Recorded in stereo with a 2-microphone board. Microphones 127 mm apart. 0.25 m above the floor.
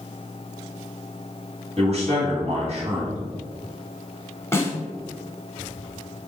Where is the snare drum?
20° left (ahead or behind), 1.0 m.